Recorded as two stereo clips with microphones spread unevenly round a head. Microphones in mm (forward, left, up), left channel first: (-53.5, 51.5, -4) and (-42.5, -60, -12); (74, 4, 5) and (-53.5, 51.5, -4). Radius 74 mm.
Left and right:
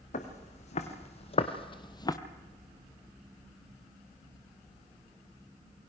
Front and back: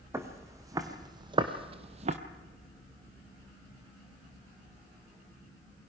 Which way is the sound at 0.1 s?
90° left.